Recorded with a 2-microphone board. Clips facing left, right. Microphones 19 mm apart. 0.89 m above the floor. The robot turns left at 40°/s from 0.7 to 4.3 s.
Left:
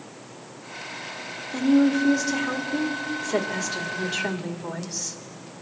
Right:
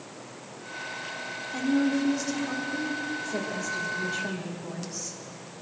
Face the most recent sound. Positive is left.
turn(degrees=35)